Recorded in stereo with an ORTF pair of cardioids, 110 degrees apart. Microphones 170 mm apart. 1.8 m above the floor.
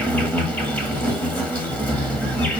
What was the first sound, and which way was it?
An insect, 10° left.